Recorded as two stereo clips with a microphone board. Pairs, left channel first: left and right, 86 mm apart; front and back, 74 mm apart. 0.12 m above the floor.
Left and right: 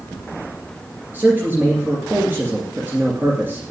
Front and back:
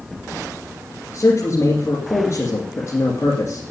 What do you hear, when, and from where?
1.1 s a man speaking: 30° right, 2.5 m